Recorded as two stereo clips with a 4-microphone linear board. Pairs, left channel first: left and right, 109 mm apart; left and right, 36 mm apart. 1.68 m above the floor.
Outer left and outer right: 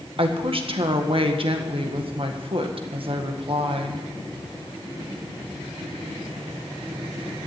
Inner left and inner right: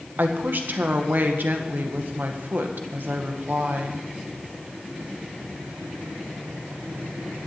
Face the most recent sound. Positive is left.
turn(degrees=-55)  # may be behind; listen again after turning